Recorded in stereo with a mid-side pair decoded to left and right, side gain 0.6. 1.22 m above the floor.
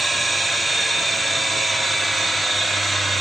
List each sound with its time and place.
0.0 s a machine running: 10° right, 0.8 m